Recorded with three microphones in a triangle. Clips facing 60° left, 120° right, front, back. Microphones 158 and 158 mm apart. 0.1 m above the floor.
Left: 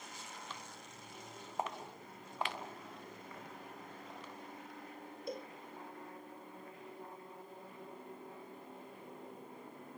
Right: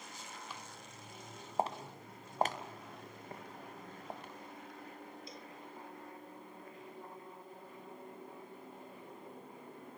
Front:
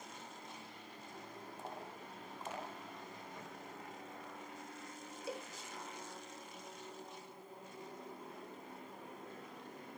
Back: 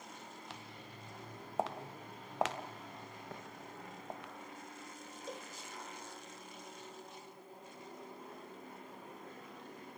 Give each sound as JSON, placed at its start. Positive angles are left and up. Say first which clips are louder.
{"t": 0.5, "sound": "footsteps", "louder": "even, back 1 dB", "azimuth_deg": 160, "distance_m": 1.6}
{"t": 3.3, "sound": "tapping", "louder": "right 6 dB, back 3 dB", "azimuth_deg": -165, "distance_m": 8.5}
{"t": 5.3, "sound": "a cowbell", "louder": "left 8 dB, front 2 dB", "azimuth_deg": 80, "distance_m": 1.0}